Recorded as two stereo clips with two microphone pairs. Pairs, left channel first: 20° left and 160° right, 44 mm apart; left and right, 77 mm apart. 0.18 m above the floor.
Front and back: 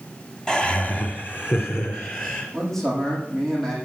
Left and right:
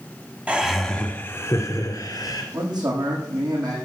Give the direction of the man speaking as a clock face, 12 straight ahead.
2 o'clock.